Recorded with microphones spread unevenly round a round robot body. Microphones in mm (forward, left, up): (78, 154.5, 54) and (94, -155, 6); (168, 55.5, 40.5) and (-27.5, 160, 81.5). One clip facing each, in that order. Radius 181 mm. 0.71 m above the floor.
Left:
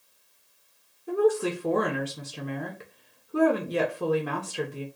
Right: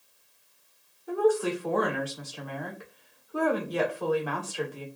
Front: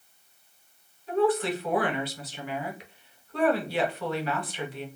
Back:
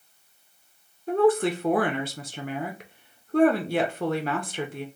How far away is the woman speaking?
About 0.7 m.